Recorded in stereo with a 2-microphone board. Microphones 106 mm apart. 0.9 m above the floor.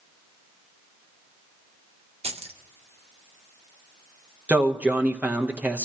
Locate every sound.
2.2 s keys jangling: 75° right (ahead or behind), 0.6 m
4.5 s a man speaking: 15° right (ahead or behind), 0.8 m